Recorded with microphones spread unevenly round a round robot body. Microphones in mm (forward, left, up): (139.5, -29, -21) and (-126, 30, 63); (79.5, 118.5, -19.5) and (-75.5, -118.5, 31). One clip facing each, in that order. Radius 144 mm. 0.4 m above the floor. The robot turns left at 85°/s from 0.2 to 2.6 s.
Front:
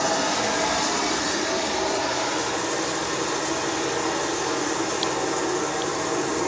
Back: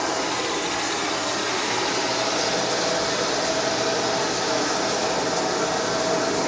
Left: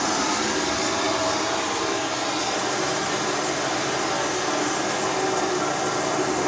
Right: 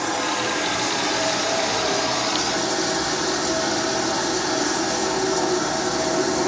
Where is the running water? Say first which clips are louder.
Front 1 dB, left 1 dB; 15° left, 9.5 m; by 6.5 s 170° left, 9.5 m.